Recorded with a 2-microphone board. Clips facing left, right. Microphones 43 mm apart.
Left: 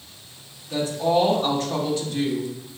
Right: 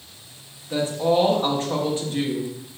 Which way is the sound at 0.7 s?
25° right (ahead or behind).